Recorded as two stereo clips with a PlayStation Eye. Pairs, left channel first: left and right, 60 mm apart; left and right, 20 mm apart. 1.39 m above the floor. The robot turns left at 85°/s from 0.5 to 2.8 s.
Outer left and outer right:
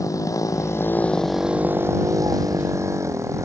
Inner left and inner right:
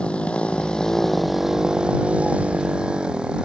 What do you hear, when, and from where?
0.0 s a motorcycle: 70° left (ahead or behind); by 3.5 s 55° right (ahead or behind)